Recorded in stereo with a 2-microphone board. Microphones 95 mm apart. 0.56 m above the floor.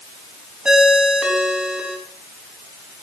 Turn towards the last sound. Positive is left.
turn(degrees=-10)  # may be behind; listen again after turning